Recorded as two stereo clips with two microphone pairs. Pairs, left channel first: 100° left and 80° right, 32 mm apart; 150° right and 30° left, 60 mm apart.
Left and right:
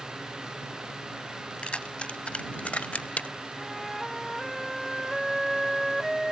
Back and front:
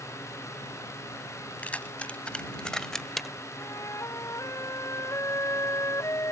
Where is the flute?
175° right.